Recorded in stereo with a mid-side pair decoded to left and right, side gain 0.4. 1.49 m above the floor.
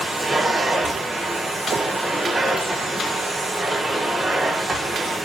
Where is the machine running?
25° right, 1.5 m.